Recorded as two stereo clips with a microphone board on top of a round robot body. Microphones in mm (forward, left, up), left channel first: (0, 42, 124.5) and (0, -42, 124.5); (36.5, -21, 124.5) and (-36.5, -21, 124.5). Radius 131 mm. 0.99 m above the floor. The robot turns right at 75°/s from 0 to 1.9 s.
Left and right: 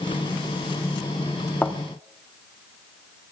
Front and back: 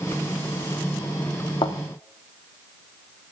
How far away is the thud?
About 1.1 m.